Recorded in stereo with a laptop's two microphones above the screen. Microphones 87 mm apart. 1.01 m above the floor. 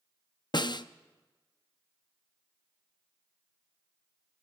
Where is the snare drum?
55° left (ahead or behind), 0.5 m.